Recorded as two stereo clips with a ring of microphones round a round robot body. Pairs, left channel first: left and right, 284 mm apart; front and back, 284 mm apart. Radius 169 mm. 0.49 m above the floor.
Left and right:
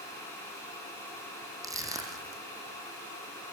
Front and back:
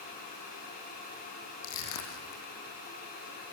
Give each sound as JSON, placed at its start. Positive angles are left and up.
{"t": 1.6, "sound": "crushing", "azimuth_deg": -10, "distance_m": 4.5}